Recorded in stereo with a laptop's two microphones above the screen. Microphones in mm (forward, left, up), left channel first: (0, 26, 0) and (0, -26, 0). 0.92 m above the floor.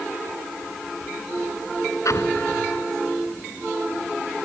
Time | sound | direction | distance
2.0 | an explosion | 75° left (ahead or behind) | ?